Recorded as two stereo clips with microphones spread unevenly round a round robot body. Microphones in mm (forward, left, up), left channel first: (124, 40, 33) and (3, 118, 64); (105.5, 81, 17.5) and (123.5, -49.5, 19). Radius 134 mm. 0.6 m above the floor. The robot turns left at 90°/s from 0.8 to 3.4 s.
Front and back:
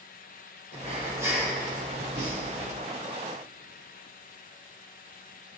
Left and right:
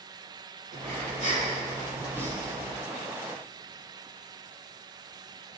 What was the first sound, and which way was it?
Breathing, 65° right.